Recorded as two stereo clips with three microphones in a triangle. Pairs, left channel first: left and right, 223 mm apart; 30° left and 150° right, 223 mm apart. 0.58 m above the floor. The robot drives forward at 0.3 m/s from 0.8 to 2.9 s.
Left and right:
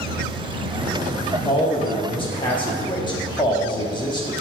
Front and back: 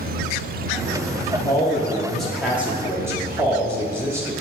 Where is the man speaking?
75° left, 0.8 m; by 4.3 s 140° left, 0.8 m.